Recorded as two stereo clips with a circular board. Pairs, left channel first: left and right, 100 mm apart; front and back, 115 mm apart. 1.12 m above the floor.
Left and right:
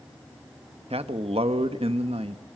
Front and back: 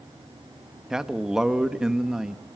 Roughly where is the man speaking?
Right.